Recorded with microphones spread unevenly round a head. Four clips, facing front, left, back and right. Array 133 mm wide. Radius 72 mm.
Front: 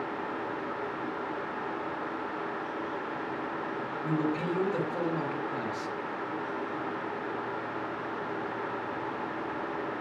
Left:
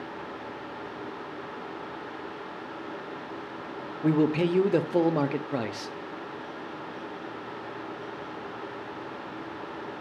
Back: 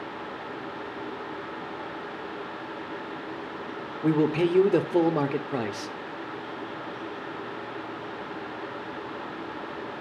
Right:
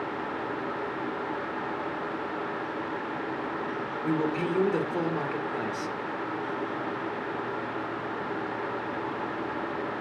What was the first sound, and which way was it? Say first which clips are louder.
A man speaking: left 5 dB, back 8 dB; 135° left.